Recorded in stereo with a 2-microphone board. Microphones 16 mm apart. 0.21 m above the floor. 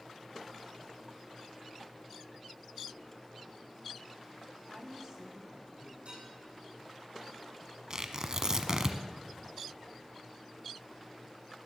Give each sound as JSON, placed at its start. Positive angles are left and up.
{"t": 4.7, "sound": "a woman speaking", "side_deg": -25, "distance_m": 1.7}
{"t": 6.0, "sound": "dishes clattering", "side_deg": -80, "distance_m": 7.5}
{"t": 7.9, "sound": "tearing paper", "side_deg": -35, "distance_m": 1.0}